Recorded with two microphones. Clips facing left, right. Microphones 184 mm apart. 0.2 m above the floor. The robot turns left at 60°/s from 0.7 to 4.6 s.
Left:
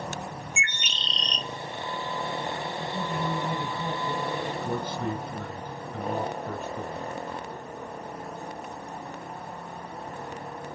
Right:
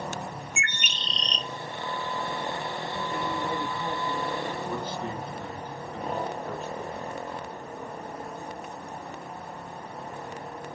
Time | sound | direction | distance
0.6 | a bird | 105° right | 0.7 m
2.8 | a woman speaking | 120° left | 5.5 m
4.6 | a man speaking | 55° left (ahead or behind) | 2.5 m